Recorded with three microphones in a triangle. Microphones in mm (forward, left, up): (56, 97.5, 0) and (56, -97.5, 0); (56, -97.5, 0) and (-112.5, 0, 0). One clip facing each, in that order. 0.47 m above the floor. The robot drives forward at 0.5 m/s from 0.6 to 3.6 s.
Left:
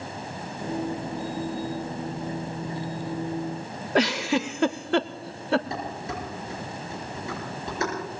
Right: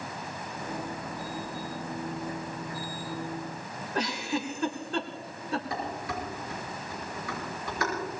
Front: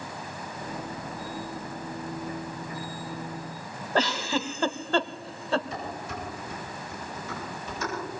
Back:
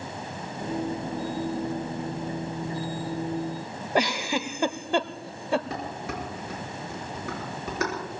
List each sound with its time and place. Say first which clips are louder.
4.0 s a giggle: left 8 dB, back 1 dB; 75° left, 0.6 m
5.7 s dishes clattering: left 1 dB, back 2 dB; 155° left, 5.5 m